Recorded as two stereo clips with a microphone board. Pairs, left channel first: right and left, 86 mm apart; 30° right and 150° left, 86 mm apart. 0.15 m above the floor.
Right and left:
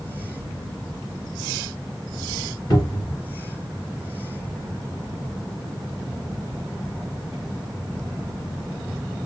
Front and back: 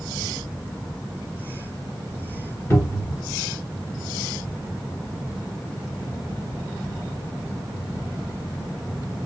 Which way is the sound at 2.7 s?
75° right.